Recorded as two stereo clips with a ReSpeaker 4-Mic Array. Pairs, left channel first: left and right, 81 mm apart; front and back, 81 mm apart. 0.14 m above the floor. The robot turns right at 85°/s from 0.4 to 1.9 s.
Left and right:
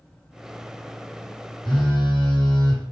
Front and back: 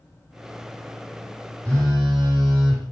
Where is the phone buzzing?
75° left, 1.3 m; by 2.9 s 95° left, 1.3 m.